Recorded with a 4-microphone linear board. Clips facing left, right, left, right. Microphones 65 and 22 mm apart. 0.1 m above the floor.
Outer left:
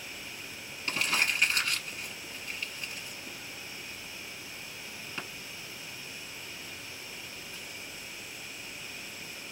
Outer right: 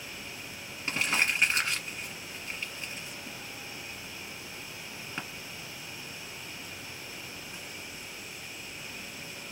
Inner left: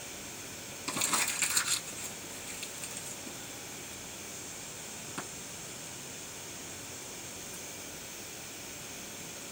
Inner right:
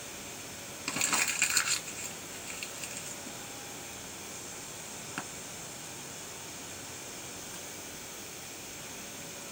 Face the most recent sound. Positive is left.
turn(degrees=-25)  # may be behind; listen again after turning